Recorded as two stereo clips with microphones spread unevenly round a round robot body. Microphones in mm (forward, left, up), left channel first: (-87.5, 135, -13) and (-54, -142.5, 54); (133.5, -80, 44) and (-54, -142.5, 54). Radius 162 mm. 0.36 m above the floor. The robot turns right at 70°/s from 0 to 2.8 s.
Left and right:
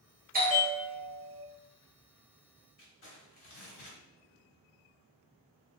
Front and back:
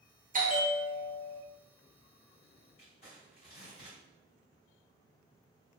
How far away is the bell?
About 1.0 m.